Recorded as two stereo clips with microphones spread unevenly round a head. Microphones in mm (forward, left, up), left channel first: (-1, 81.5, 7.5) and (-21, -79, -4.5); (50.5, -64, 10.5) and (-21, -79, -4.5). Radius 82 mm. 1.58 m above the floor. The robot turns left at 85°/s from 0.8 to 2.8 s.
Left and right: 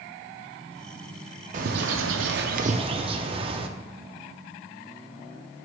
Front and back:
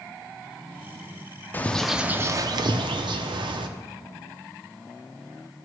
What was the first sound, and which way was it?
A bird, 50° right.